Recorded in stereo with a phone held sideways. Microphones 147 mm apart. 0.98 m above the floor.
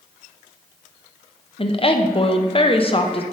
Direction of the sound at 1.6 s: 40° left (ahead or behind).